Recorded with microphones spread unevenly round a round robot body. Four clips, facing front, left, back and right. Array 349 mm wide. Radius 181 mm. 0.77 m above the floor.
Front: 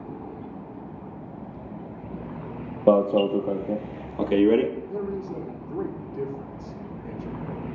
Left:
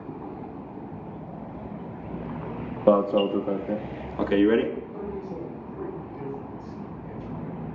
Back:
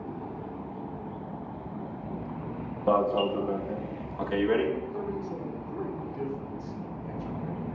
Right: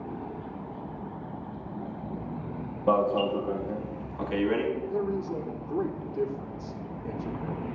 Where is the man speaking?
60° right, 2 m.